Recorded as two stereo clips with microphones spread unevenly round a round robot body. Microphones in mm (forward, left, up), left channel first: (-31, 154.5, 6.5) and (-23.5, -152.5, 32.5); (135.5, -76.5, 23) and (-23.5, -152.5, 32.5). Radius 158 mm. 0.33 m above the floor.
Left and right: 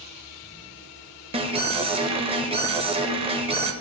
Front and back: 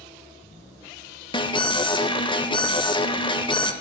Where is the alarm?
20° right, 0.8 m.